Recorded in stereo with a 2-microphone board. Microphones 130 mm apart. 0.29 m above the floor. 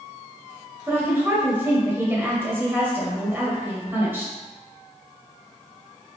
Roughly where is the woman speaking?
Centre.